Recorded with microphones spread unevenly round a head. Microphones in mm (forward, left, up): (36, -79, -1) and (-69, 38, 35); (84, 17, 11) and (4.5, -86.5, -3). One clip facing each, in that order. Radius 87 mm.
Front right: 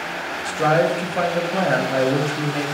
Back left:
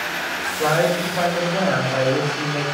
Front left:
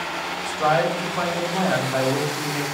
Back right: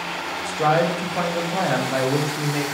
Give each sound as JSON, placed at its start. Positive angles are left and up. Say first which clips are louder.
{"t": 0.5, "sound": "a man speaking", "louder": "front right 1 dB, back right 1 dB", "azimuth_deg": -80, "distance_m": 1.0}